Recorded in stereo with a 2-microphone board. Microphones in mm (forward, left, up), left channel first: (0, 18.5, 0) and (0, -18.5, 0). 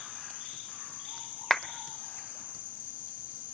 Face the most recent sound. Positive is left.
turn(degrees=10)  # may be behind; listen again after turning